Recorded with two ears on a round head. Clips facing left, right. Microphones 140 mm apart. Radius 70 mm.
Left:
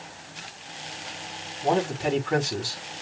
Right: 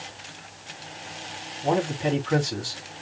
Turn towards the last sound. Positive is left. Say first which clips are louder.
# even
turn(degrees=5)  # may be behind; listen again after turning